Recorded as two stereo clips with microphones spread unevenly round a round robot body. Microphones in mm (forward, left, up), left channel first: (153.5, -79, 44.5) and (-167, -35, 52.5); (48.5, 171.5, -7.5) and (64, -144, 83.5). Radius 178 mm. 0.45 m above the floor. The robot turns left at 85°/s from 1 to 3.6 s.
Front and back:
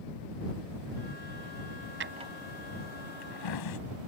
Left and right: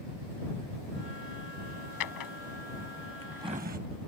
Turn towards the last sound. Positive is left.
turn(degrees=-20)